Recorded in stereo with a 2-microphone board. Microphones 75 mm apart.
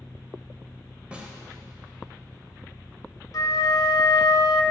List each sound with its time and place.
1.1 s a snare drum: 15° right (ahead or behind), 1.2 m
3.3 s a flute: 55° left (ahead or behind), 0.7 m